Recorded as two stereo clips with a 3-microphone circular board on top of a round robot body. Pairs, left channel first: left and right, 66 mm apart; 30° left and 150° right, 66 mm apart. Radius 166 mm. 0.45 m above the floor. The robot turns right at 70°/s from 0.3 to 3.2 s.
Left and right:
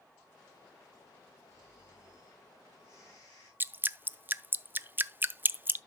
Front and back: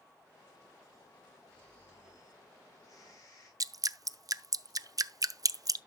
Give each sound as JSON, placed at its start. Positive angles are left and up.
{"t": 1.5, "sound": "snoring", "azimuth_deg": -60, "distance_m": 8.5}
{"t": 3.6, "sound": "dripping", "azimuth_deg": -150, "distance_m": 0.5}